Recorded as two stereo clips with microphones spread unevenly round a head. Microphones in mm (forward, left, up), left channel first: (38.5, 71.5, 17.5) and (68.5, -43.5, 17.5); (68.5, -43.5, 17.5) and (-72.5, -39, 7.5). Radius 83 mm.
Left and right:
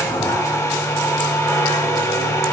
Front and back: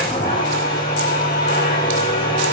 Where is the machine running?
45° left, 2 m.